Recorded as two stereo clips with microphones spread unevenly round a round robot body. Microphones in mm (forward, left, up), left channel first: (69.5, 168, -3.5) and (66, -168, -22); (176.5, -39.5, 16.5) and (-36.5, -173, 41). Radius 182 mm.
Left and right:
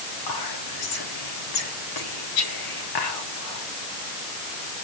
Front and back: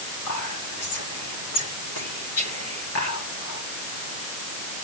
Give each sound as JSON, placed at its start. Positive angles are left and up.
{"t": 0.3, "sound": "whispering", "azimuth_deg": 70, "distance_m": 4.5}